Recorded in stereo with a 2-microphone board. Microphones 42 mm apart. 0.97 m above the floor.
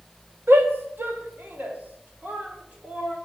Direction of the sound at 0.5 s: 65° right (ahead or behind).